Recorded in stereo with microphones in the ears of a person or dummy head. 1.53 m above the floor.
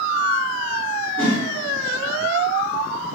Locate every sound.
1.2 s a whoosh: 5° left (ahead or behind), 1.1 m